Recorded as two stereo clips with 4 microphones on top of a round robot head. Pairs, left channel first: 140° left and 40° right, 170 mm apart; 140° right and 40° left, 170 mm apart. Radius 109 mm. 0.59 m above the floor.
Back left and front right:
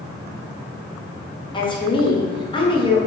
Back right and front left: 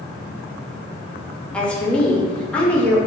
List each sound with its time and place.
1.5 s a woman speaking: 145° left, 0.7 m